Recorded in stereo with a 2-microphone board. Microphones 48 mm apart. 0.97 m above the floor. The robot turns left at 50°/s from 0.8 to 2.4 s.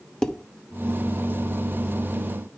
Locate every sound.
0.2 s dishes clattering: 10° left (ahead or behind), 1.0 m